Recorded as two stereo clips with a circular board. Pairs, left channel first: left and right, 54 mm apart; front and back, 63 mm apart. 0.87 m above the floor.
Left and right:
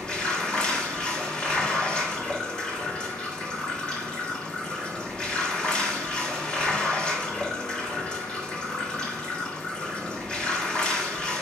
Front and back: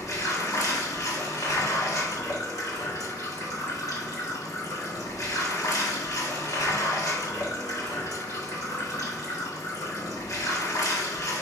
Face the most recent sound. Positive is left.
turn(degrees=20)